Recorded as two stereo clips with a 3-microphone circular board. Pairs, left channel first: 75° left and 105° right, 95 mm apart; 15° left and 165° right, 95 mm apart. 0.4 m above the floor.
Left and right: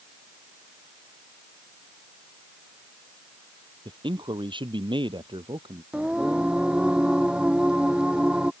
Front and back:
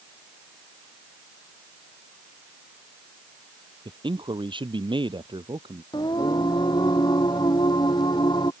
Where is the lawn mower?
No lawn mower in this recording.